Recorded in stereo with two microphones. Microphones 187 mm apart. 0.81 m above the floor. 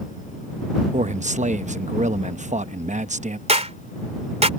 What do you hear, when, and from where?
0.9 s a man speaking: 40° right (ahead or behind)
3.5 s a clap: 35° right (ahead or behind)